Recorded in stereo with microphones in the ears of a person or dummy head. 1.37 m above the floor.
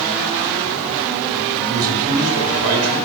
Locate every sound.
1.7 s a man speaking: 80° right, 5.5 m